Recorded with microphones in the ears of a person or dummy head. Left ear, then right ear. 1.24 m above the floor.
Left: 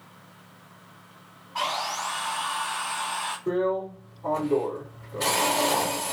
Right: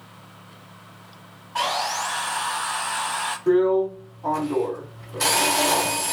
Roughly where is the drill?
Right.